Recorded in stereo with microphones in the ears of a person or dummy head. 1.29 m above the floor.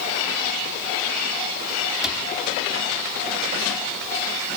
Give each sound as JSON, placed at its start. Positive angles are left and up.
{"t": 2.0, "sound": "a cupboard door", "side_deg": 0, "distance_m": 3.0}